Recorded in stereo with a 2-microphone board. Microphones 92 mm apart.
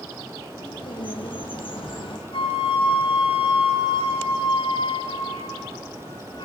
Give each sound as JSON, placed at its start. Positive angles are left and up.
{"t": 0.5, "sound": "a bird", "side_deg": 70, "distance_m": 7.5}
{"t": 2.3, "sound": "a flute", "side_deg": 70, "distance_m": 5.5}